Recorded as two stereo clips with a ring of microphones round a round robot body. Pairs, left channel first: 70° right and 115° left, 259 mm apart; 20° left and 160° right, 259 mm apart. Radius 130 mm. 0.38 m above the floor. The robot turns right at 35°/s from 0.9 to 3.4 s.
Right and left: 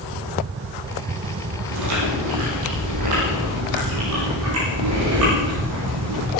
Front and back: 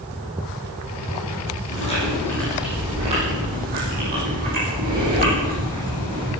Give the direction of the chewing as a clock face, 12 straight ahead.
9 o'clock.